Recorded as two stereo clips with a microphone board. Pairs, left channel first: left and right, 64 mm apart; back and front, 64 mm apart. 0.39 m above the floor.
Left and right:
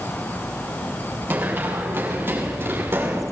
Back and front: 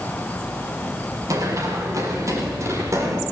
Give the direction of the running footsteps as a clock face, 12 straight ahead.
1 o'clock.